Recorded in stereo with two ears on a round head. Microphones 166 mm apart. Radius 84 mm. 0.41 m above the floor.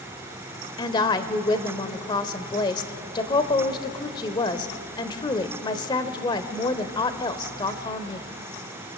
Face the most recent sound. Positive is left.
turn(degrees=25)  # may be behind; listen again after turning